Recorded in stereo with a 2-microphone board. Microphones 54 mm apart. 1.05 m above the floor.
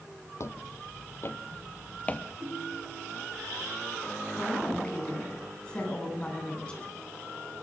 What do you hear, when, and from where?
0.4 s footsteps: 55° left (ahead or behind), 1.8 m; by 2.3 s 20° left (ahead or behind), 1.3 m
2.4 s a ringtone: 50° right (ahead or behind), 8 m
4.3 s a woman speaking: 20° left (ahead or behind), 10 m